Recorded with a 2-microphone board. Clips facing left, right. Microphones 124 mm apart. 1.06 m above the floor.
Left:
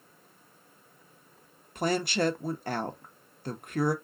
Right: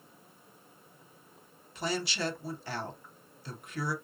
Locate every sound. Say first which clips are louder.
1.8 s a woman speaking: left 6 dB; 50° left (ahead or behind), 0.8 m